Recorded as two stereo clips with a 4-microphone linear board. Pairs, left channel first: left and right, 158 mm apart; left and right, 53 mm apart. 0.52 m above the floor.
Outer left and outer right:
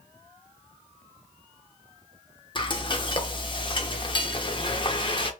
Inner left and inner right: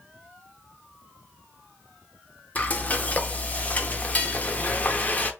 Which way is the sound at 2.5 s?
30° left (ahead or behind).